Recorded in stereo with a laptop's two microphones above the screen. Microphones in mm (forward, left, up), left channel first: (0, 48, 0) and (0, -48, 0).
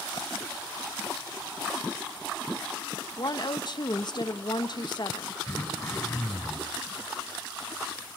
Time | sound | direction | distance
3.2 | a woman speaking | 50° left (ahead or behind) | 1.4 m
5.5 | throat clearing | 20° left (ahead or behind) | 4.5 m